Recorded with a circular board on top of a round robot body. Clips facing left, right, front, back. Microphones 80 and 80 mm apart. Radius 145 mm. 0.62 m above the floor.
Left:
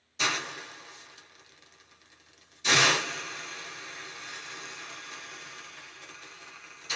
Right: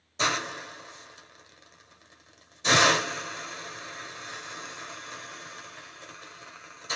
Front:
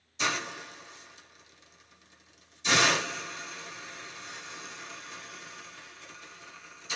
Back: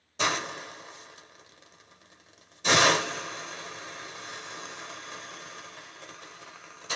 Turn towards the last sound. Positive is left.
turn(degrees=-150)